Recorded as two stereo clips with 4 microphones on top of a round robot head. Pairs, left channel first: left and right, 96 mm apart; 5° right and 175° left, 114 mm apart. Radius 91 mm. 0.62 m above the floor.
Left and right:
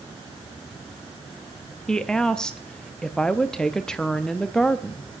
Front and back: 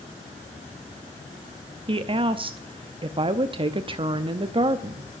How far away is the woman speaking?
About 0.7 m.